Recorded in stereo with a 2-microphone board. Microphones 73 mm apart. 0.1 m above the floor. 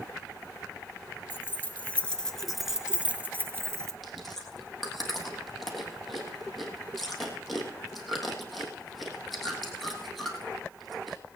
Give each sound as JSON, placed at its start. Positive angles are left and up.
{"t": 1.3, "sound": "keys jangling", "side_deg": 30, "distance_m": 1.2}
{"t": 4.0, "sound": "chewing", "side_deg": 0, "distance_m": 3.0}